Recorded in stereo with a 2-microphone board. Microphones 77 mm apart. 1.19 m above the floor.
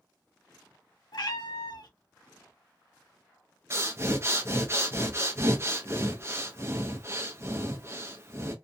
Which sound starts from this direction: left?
A cat meowing, at 1.1 s.